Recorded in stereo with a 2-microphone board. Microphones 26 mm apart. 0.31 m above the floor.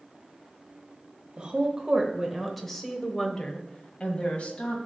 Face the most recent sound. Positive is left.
turn(degrees=55)  # may be behind; listen again after turning